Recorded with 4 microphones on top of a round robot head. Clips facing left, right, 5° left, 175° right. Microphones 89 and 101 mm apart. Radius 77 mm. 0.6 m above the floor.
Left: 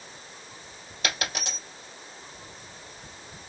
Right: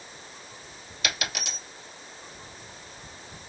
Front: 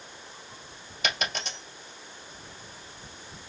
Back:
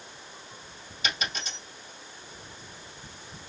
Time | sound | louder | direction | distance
1.0 | a dropped coin | left 1 dB, front 2 dB | 35° left | 2 m